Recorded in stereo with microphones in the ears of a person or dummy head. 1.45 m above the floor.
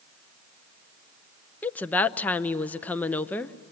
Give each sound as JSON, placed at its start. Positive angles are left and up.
{"t": 1.6, "sound": "a woman speaking", "side_deg": 10, "distance_m": 0.6}